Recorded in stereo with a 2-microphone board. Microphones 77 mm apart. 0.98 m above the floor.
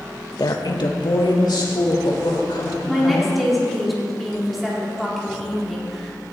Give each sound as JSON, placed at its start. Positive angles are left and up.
{"t": 0.4, "sound": "a woman speaking", "side_deg": 55, "distance_m": 0.8}
{"t": 2.9, "sound": "a woman speaking", "side_deg": 0, "distance_m": 3.0}